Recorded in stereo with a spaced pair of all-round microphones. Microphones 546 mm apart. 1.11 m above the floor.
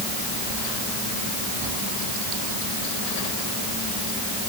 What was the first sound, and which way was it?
Only background noise.